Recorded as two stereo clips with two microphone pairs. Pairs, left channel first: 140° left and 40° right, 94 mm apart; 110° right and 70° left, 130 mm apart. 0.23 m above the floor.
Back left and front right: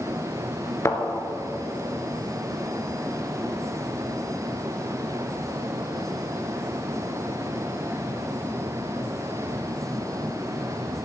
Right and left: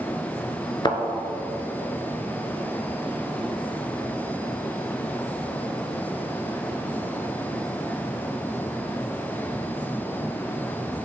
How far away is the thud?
About 1.4 m.